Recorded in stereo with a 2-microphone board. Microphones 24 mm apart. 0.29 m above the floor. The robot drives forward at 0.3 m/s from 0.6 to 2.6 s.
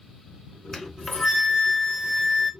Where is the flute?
20° left (ahead or behind), 0.7 m; by 2.5 s 10° left (ahead or behind), 1.2 m.